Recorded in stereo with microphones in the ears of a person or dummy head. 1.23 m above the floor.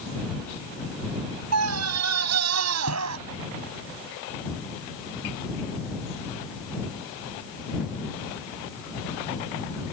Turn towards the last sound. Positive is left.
turn(degrees=-85)